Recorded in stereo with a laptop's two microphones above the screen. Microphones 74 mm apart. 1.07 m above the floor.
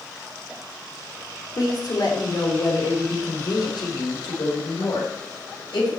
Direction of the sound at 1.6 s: 55° left (ahead or behind).